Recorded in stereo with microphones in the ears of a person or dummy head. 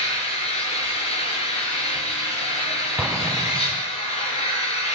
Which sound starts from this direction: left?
An engine running, at 0.0 s.